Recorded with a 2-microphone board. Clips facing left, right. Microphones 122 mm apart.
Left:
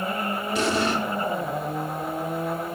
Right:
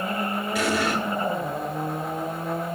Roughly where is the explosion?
Left.